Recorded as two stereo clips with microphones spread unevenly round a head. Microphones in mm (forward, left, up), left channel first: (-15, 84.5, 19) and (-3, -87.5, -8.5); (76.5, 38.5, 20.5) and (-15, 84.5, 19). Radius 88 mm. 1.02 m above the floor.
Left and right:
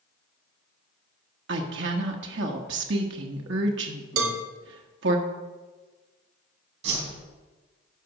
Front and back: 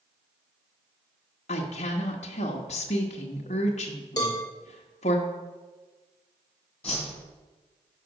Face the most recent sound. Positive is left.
turn(degrees=-110)